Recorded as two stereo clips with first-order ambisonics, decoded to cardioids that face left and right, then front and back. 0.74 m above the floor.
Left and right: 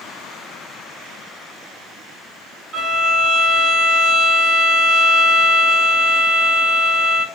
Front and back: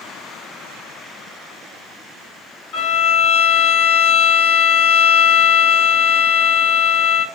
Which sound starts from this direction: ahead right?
A violin, at 2.7 s.